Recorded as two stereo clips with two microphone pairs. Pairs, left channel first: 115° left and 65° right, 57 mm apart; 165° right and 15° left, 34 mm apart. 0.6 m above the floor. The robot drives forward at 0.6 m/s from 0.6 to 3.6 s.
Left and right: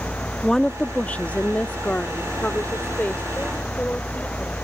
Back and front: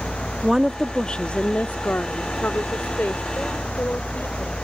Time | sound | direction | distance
0.4 | a woman speaking | 60° left | ?